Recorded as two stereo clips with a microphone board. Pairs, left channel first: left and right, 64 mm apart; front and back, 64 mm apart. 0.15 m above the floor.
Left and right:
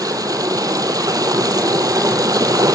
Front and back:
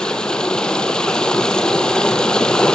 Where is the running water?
80° right, 1.1 m.